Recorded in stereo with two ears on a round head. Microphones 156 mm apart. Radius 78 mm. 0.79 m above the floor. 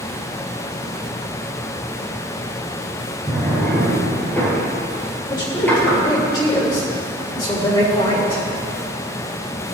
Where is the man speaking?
25° left (ahead or behind), 5 m.